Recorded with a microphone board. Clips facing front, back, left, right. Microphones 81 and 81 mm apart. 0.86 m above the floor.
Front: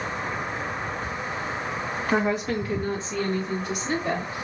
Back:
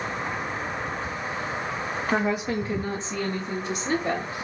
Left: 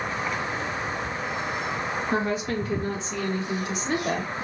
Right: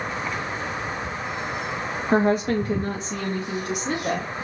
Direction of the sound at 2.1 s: 90° right.